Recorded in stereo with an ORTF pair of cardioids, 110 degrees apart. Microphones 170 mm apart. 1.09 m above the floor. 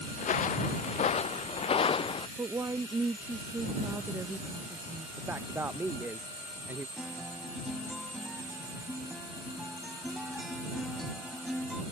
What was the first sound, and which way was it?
Footsteps, 50° left.